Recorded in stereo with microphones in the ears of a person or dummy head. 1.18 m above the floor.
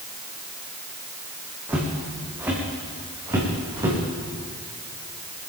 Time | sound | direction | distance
1.7 | footsteps | 15° right (ahead or behind) | 4 m